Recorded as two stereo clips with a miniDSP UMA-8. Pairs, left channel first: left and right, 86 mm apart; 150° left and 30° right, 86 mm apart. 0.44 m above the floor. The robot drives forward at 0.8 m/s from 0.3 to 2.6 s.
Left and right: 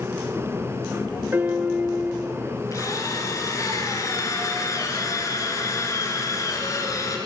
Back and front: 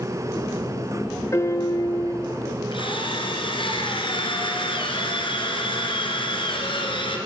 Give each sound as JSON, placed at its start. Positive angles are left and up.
{"t": 1.3, "sound": "a piano", "azimuth_deg": -155, "distance_m": 1.1}
{"t": 2.7, "sound": "a drill", "azimuth_deg": 140, "distance_m": 3.5}